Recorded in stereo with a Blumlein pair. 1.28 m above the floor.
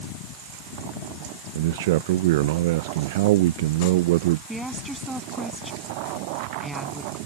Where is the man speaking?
50° right.